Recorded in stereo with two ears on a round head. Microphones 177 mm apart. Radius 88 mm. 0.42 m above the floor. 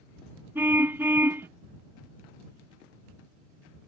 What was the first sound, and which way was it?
A car horn, 10° right (ahead or behind).